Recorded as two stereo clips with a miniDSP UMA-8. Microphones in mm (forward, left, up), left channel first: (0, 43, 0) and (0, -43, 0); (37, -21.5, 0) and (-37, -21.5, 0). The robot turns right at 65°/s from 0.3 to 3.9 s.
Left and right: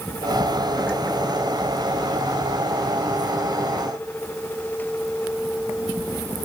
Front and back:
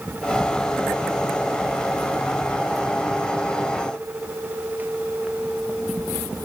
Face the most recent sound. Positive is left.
No sound to turn to.